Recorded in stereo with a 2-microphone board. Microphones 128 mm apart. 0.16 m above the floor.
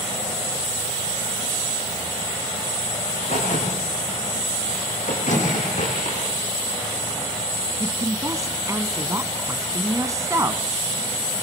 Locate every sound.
3.1 s a crack: 70° left (ahead or behind), 7.5 m
5.3 s a microwave: 70° left (ahead or behind), 7.5 m
7.8 s a woman speaking: 25° right (ahead or behind), 1.2 m